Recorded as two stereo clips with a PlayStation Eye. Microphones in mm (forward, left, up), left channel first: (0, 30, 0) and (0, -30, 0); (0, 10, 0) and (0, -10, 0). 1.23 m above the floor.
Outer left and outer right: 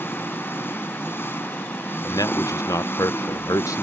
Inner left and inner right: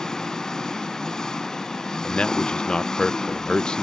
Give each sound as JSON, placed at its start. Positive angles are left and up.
{"t": 0.0, "sound": "an engine running", "side_deg": 40}
{"t": 2.0, "sound": "a man speaking", "side_deg": 70}